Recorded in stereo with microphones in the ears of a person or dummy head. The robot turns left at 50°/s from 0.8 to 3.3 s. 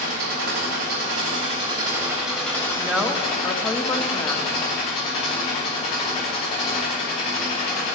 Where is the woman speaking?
10° right (ahead or behind), 0.8 m; by 4.5 s 15° left (ahead or behind), 0.8 m.